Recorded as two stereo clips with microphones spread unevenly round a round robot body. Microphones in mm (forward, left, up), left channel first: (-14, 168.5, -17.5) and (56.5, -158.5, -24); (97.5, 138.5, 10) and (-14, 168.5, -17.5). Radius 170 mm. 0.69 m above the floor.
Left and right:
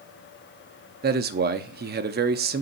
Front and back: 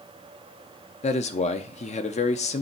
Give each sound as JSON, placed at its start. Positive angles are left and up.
{"t": 1.0, "sound": "a man speaking", "azimuth_deg": -25, "distance_m": 0.6}